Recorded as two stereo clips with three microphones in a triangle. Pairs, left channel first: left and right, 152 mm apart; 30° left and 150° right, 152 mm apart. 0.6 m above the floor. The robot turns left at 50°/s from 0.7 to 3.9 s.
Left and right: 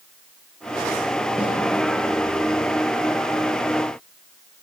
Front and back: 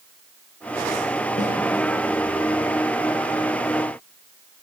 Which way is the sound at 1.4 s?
5° right.